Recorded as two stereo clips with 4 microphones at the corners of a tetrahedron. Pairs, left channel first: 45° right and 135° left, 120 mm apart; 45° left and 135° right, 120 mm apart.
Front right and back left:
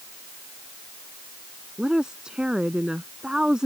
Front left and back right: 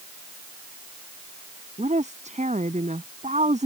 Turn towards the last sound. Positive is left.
turn(degrees=-140)